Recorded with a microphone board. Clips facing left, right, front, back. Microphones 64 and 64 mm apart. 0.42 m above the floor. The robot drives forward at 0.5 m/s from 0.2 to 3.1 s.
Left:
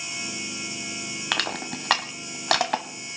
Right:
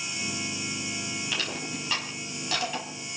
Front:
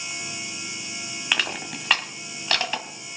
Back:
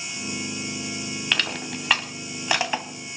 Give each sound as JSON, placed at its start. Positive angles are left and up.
{"t": 1.3, "sound": "crushing", "azimuth_deg": 80, "distance_m": 1.4}